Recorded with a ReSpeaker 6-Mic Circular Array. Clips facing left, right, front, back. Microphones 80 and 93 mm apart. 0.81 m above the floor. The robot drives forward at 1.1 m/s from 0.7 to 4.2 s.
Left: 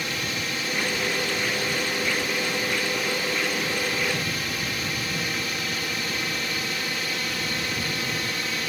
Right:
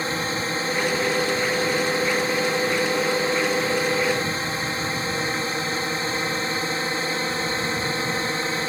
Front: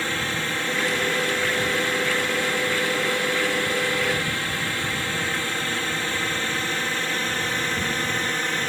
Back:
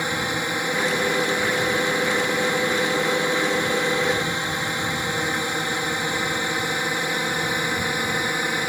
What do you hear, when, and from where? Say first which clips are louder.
0.0 s a drone: right 5 dB, back 2 dB; 115° right; by 8.7 s 110° right